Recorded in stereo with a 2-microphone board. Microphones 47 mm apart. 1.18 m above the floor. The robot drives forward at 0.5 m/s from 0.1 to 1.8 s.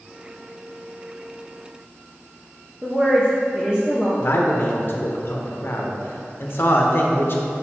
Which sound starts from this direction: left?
A man speaking, at 4.2 s.